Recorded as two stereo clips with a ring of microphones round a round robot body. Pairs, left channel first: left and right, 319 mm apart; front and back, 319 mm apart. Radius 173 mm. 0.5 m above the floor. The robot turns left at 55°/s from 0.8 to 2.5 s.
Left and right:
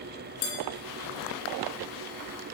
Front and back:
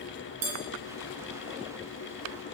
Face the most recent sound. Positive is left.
turn(degrees=35)